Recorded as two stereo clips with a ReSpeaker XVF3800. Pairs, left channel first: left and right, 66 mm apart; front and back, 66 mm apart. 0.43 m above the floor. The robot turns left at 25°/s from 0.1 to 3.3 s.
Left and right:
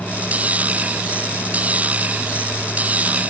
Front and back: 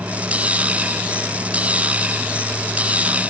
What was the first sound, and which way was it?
Only background noise.